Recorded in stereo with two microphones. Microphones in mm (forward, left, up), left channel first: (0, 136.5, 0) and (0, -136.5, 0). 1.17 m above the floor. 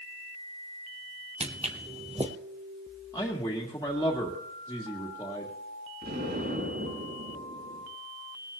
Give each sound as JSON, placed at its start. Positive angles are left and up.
{"t": 1.4, "sound": "footsteps", "side_deg": -25, "distance_m": 1.3}
{"t": 3.1, "sound": "a man speaking", "side_deg": 10, "distance_m": 1.7}
{"t": 6.0, "sound": "an explosion", "side_deg": -40, "distance_m": 6.5}